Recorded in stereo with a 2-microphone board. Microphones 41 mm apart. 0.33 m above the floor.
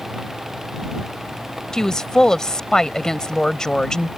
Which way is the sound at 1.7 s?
15° left (ahead or behind).